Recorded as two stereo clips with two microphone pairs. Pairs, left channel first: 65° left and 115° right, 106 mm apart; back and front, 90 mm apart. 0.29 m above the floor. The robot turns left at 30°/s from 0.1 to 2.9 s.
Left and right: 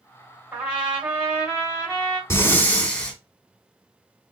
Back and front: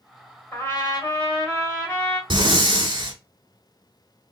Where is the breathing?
5° left, 0.9 m; by 3.2 s 10° right, 0.9 m.